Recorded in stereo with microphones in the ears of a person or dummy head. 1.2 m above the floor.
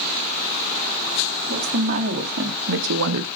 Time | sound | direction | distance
1.5 | a woman speaking | 45° right (ahead or behind) | 1.8 m